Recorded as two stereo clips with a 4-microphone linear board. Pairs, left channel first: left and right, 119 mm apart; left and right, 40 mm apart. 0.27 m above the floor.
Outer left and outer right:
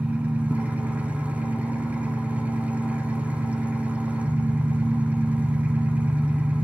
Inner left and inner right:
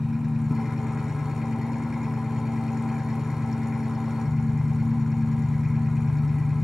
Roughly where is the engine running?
Centre.